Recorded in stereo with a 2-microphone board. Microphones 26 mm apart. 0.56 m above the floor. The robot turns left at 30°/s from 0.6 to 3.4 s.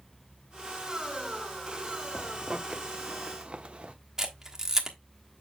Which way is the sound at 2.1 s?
30° right (ahead or behind).